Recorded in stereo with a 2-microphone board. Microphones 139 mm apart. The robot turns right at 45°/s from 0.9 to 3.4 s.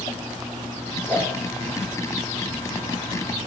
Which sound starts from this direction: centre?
A whoosh, at 1.1 s.